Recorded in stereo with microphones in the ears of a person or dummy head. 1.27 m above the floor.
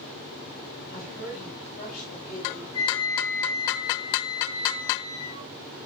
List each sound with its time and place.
0.9 s a woman speaking: 55° left (ahead or behind), 9 m
2.7 s a flute: 25° left (ahead or behind), 9.5 m